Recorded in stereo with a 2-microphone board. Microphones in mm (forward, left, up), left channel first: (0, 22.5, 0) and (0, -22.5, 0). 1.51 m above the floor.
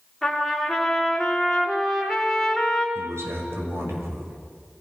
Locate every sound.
0.2 s a trumpet: 5° left (ahead or behind), 4 m
3.0 s a man speaking: 75° right (ahead or behind), 7 m